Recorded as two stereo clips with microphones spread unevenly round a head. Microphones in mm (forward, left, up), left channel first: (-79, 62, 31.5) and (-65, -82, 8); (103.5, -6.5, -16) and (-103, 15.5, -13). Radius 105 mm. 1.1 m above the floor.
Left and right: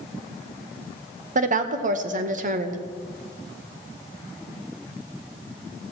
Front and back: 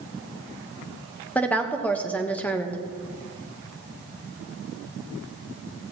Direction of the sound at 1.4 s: 90° right.